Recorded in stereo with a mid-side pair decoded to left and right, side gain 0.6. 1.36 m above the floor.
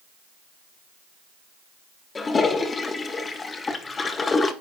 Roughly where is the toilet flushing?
Ahead left.